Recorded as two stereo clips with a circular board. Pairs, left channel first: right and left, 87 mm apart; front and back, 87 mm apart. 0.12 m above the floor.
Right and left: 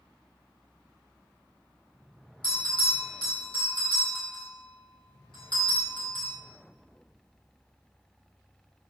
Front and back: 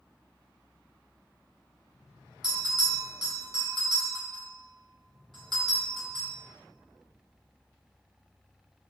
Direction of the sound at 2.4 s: 90° right.